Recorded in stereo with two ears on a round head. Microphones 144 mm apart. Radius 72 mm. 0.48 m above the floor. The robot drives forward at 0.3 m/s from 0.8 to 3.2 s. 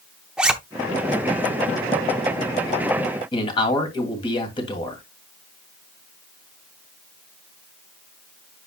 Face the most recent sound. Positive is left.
turn(degrees=30)  # may be behind; listen again after turning